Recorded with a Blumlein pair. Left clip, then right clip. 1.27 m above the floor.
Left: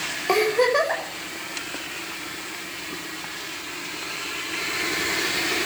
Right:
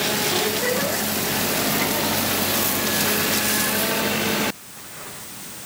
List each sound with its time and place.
0.3 s a giggle: 45° left, 5 m